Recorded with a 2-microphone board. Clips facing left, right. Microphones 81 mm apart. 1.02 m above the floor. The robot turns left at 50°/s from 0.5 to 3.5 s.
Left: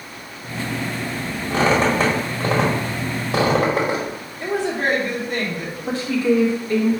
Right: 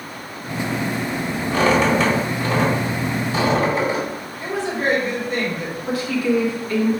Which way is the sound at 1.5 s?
20° left (ahead or behind).